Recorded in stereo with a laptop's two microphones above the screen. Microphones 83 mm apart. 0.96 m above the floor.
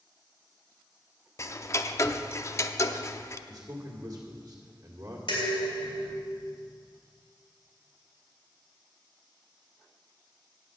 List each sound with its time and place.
1.4 s ticking: 35° left (ahead or behind), 0.5 m
3.5 s a man speaking: 30° right (ahead or behind), 2 m
5.3 s dishes clattering: 70° left (ahead or behind), 3 m